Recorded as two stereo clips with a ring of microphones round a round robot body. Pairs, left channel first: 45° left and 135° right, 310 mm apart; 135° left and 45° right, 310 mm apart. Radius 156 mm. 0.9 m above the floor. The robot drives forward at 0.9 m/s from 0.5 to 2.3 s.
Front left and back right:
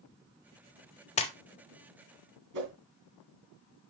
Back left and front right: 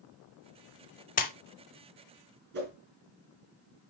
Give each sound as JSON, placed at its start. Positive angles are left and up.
{"t": 1.2, "sound": "a splash", "azimuth_deg": 95, "distance_m": 0.7}
{"t": 2.5, "sound": "a whoosh", "azimuth_deg": -100, "distance_m": 2.5}